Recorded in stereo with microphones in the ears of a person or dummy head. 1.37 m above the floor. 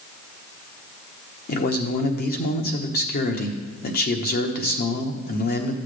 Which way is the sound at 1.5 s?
40° left (ahead or behind).